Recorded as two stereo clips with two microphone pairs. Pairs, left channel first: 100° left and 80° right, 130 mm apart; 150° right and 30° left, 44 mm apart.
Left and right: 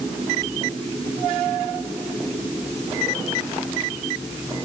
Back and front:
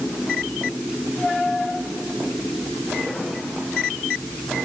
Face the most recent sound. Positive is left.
No sound to turn to.